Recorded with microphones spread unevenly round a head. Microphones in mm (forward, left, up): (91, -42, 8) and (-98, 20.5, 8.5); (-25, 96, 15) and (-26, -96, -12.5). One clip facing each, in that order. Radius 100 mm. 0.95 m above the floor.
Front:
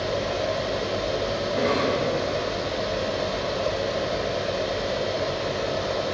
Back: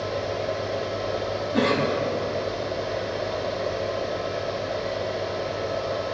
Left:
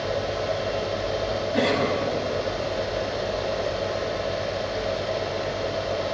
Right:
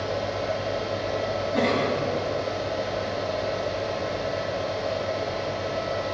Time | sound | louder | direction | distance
0.0 | a fan | front 2 dB, left 1 dB | 10° left | 6.5 m
1.5 | a cough | back 2 dB, left 1 dB | 175° left | 7.5 m